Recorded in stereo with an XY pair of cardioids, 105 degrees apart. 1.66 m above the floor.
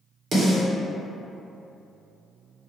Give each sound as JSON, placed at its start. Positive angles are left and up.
{"t": 0.3, "sound": "a snare drum", "azimuth_deg": -50, "distance_m": 1.8}